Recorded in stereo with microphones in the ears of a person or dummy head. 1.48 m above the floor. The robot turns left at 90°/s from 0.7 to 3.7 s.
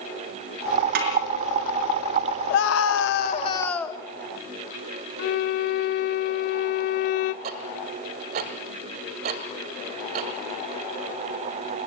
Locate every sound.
0.9 s a snare drum: 60° right (ahead or behind), 5 m; by 1.1 s 45° right (ahead or behind), 5 m
2.5 s a scream: 120° left, 1.4 m; by 4.0 s 15° left, 1.4 m
5.2 s a violin: 45° left (ahead or behind), 0.6 m
7.4 s ticking: 45° right (ahead or behind), 1.7 m